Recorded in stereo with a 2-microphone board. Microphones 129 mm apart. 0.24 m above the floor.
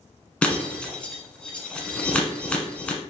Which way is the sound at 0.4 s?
10° left (ahead or behind).